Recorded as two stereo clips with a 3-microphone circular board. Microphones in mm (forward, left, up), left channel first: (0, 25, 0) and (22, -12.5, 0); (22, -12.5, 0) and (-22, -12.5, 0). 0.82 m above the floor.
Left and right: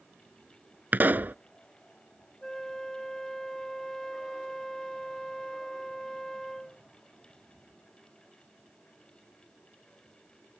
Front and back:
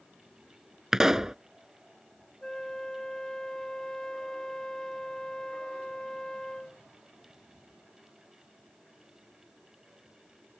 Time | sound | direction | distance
0.9 | a pop | 105° right | ?
2.4 | a flute | 50° left | ?